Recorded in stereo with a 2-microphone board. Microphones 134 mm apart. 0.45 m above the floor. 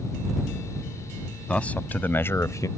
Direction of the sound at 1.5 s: 10° left (ahead or behind).